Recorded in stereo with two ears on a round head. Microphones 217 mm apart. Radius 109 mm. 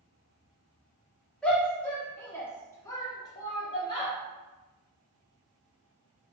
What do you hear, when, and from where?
1.4 s a shout: 5° left (ahead or behind), 1.4 m; by 4.1 s 20° left (ahead or behind), 0.8 m